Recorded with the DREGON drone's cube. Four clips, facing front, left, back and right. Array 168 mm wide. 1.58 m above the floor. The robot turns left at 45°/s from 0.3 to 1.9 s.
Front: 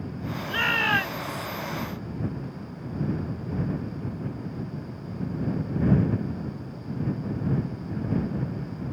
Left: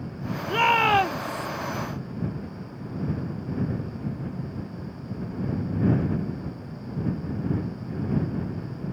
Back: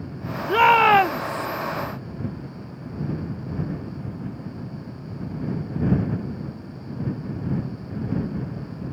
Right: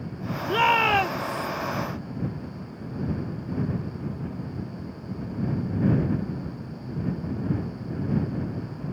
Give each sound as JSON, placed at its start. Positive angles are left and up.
{"t": 0.5, "sound": "a shout", "azimuth_deg": -170}